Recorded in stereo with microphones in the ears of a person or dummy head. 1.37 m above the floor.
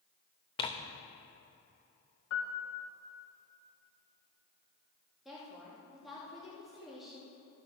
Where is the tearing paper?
30° left (ahead or behind), 0.8 m.